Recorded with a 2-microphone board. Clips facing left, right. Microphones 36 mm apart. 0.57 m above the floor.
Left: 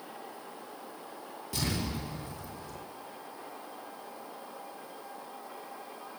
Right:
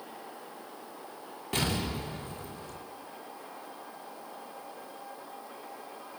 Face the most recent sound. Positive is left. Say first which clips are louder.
# right 3 dB
turn(degrees=-55)  # may be behind; listen again after turning